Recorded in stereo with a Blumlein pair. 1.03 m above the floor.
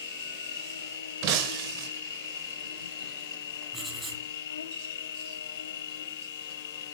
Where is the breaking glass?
40° right, 3 m.